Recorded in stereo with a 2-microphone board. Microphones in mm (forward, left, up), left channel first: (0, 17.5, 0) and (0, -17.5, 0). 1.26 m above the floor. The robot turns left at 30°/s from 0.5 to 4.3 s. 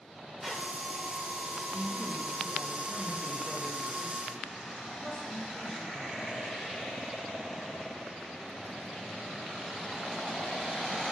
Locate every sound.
0.4 s a squeak: centre (ahead or behind), 1.0 m
1.7 s a woman speaking: 100° right, 1.6 m; by 6.5 s straight behind, 1.6 m